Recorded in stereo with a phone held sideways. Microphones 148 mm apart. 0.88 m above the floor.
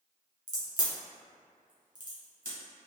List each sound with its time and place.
0.5 s a crack: 65° right (ahead or behind), 1.4 m